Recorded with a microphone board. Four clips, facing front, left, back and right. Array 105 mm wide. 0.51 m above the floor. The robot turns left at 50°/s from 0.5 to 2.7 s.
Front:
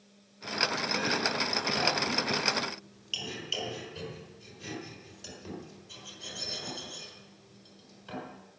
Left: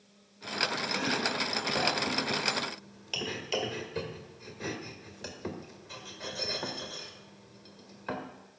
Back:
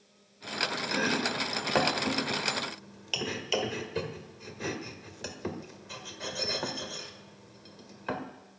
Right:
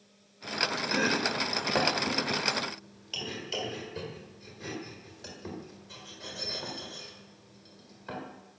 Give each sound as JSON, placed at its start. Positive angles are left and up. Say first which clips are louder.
{"t": 0.9, "sound": "chopping", "louder": "right 6 dB, back 1 dB", "azimuth_deg": -115, "distance_m": 1.8}